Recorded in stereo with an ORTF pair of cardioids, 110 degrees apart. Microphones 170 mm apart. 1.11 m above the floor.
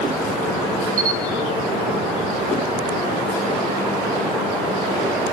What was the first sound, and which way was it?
A camera shutter, 55° right.